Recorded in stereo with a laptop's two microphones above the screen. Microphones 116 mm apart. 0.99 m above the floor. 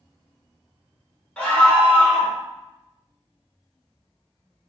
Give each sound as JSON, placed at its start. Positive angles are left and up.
{"t": 1.4, "sound": "a scream", "side_deg": 10, "distance_m": 1.3}